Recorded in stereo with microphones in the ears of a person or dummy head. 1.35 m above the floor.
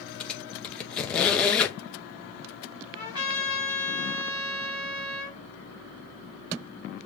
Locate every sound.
0.2 s a squeak: 10° left (ahead or behind), 0.8 m
2.9 s a trumpet: 35° right (ahead or behind), 2.5 m